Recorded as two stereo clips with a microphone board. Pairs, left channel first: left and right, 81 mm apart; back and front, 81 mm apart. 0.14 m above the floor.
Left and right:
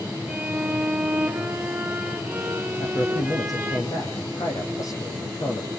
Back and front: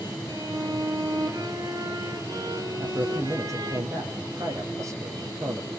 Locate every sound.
0.3 s a violin: 20° right, 2 m
2.8 s a man speaking: 50° left, 4 m